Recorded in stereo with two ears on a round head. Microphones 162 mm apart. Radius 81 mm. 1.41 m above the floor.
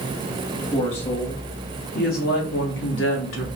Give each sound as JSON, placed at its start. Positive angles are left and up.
{"t": 0.7, "sound": "a woman speaking", "side_deg": 35, "distance_m": 2.0}